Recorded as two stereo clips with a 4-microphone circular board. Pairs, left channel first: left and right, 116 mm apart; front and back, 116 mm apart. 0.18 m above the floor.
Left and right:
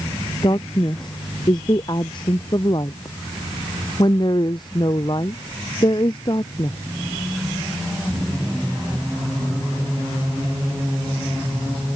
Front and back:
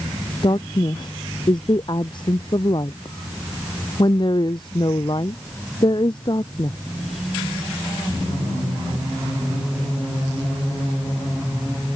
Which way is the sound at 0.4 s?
45° left.